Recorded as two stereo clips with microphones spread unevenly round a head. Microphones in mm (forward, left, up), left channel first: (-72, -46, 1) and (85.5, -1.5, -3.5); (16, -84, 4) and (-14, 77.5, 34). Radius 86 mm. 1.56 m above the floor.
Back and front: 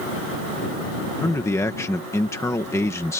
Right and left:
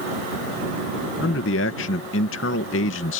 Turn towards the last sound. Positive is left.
turn(degrees=-90)